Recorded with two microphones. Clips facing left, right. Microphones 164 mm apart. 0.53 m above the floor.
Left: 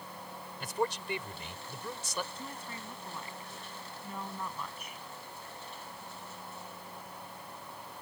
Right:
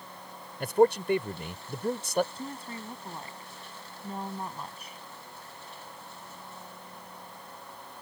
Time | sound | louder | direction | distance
0.6 | a man speaking | right 12 dB | 60° right (ahead or behind) | ?
2.4 | a woman speaking | right 5 dB | 35° right (ahead or behind) | ?